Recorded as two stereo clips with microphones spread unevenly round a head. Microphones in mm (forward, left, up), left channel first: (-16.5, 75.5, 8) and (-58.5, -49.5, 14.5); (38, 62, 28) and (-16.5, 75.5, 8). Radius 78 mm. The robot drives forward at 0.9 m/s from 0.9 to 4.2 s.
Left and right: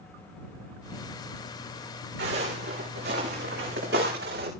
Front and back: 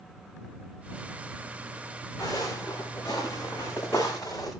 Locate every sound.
2.2 s footsteps: 85° right, 7 m